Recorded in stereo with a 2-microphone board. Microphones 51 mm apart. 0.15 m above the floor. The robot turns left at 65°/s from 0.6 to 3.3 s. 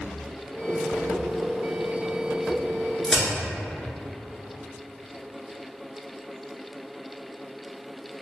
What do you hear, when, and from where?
3.0 s a crack: 10° left (ahead or behind), 1.4 m; by 3.2 s 5° right (ahead or behind), 1.4 m